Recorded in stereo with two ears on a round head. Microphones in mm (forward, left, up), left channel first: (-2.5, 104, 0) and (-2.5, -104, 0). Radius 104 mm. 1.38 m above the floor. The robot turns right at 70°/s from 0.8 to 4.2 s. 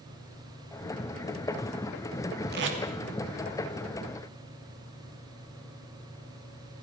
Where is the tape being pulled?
45° right (ahead or behind), 2.5 m; by 2.8 s 65° right (ahead or behind), 2.5 m.